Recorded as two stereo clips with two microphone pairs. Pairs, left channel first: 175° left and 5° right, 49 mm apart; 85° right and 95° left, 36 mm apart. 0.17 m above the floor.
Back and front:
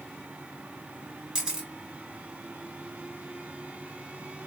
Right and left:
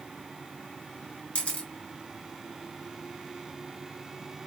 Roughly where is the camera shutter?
Ahead right.